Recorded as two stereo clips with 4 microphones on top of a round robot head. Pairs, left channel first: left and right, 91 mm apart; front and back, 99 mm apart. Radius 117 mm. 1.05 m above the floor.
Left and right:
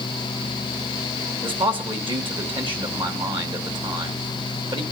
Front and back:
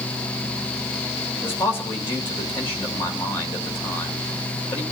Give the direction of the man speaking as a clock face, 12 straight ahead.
2 o'clock.